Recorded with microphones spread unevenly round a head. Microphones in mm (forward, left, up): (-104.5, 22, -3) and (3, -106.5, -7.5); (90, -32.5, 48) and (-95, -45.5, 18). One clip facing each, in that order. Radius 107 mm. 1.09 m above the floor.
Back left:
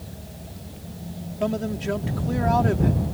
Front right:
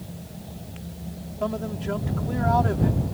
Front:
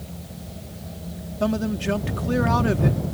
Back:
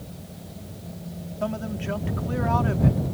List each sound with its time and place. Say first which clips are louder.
1.4 s a man speaking: back left 3 dB, front 6 dB; 55° left